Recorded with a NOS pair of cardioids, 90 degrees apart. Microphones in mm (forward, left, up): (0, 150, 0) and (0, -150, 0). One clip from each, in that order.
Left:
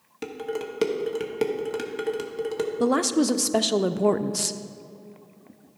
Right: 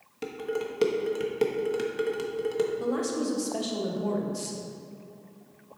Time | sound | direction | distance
0.2 | dishes clattering | 15° left | 1.0 m
2.8 | a woman speaking | 60° left | 0.6 m